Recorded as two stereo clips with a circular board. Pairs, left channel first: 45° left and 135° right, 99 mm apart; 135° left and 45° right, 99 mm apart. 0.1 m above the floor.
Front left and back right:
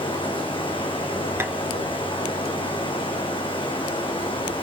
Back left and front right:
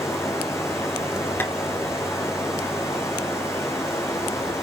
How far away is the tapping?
About 1.8 m.